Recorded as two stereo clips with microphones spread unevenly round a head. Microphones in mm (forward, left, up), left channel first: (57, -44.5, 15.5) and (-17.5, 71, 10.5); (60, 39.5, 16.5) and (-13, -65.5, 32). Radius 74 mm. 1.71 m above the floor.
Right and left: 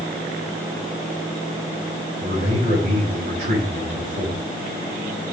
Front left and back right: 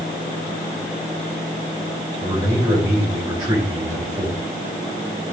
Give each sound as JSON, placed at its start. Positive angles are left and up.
{"t": 2.2, "sound": "a man speaking", "azimuth_deg": 165, "distance_m": 6.0}